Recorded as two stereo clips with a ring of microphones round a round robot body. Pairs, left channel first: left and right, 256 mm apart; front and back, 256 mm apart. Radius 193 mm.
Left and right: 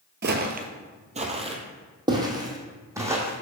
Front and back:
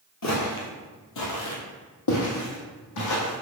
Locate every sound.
0.2 s footsteps: 45° right, 0.9 m; by 3.4 s 10° right, 2.5 m